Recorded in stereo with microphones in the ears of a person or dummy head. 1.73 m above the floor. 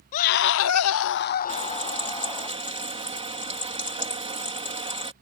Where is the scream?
40° left (ahead or behind); by 2.5 s 20° left (ahead or behind).